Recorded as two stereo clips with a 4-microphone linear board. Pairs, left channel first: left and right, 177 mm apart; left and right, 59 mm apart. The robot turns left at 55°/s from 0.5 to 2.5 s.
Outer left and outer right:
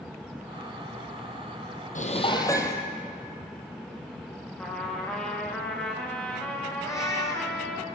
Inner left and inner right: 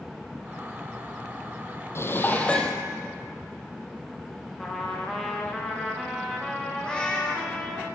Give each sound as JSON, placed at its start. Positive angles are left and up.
{"t": 1.9, "sound": "dishes clattering", "azimuth_deg": 50, "distance_m": 2.5}
{"t": 4.6, "sound": "a trumpet", "side_deg": 5, "distance_m": 5.5}
{"t": 6.8, "sound": "a cat meowing", "side_deg": 15, "distance_m": 3.5}